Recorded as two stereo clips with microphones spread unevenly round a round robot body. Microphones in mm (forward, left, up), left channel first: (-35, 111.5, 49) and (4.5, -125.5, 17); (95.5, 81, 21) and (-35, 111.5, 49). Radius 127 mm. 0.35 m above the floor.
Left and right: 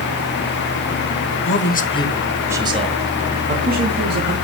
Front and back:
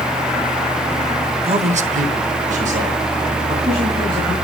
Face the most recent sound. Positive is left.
turn(degrees=-125)